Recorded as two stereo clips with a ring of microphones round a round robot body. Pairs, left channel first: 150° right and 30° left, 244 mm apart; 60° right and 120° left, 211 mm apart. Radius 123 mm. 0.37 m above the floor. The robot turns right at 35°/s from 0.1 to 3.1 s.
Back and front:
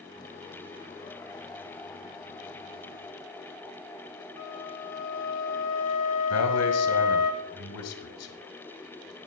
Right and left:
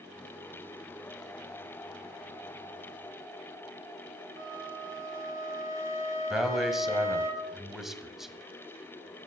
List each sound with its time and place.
4.4 s a flute: 165° right, 3.5 m
6.3 s a man speaking: 150° right, 2 m